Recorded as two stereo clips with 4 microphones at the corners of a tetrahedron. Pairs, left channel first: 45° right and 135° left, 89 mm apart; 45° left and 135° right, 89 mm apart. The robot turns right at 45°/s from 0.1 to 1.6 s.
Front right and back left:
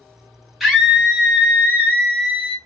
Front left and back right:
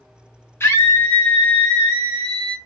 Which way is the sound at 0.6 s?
50° left.